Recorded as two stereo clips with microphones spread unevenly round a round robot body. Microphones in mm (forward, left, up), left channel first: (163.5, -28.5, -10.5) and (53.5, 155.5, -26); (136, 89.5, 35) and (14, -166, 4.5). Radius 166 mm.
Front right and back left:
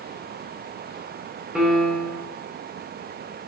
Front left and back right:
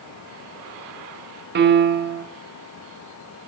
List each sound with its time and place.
1.6 s a piano: 155° right, 0.8 m